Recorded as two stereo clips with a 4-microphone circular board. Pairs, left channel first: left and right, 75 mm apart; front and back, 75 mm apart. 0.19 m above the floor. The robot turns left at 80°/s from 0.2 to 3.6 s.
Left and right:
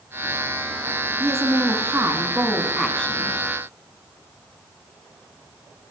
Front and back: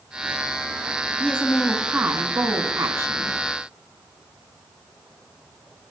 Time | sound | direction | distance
1.2 | a woman speaking | 55° right | 1.9 m